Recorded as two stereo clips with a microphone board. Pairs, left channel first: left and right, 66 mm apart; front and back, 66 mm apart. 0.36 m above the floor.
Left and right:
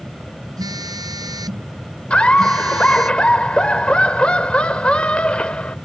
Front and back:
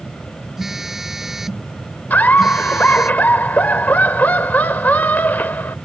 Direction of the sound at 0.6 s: 95° right.